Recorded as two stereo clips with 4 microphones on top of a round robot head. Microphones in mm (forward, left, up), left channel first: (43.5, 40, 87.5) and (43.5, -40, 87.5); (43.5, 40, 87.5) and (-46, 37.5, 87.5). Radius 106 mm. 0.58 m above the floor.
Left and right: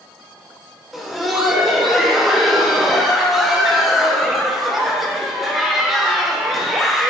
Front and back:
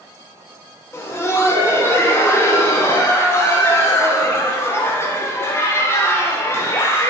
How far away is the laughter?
About 0.8 m.